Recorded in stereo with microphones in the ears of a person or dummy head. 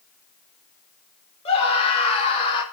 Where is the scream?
30° left (ahead or behind), 3.5 m; by 2.6 s 25° left (ahead or behind), 2.5 m.